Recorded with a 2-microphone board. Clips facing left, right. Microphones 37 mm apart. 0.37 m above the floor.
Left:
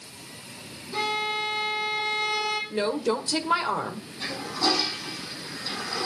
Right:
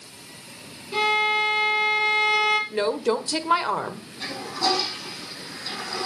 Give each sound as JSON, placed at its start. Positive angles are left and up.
{"t": 0.9, "sound": "a violin", "side_deg": -85, "distance_m": 5.5}
{"t": 2.7, "sound": "a woman speaking", "side_deg": -20, "distance_m": 1.5}
{"t": 4.2, "sound": "a toilet flushing", "side_deg": -10, "distance_m": 5.5}